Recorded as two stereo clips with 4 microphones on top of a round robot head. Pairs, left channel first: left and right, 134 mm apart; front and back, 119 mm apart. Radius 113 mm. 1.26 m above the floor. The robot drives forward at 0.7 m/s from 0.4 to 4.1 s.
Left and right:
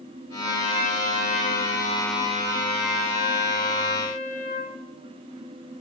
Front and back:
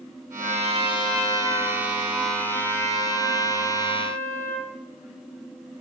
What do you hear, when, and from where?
0.4 s a trumpet: 35° left, 4.5 m; by 4.7 s 70° left, 3 m